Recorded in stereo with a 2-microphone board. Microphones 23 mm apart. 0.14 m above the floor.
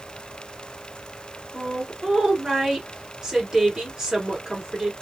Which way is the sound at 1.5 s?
25° right (ahead or behind).